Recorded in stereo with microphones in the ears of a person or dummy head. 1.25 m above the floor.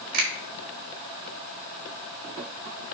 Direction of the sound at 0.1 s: 50° right (ahead or behind).